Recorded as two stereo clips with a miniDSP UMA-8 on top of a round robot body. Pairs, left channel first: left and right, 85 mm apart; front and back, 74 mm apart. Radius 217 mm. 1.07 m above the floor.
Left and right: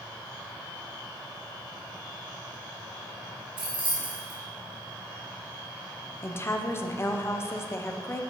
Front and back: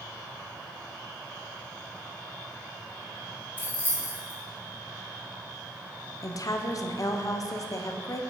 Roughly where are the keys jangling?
Right.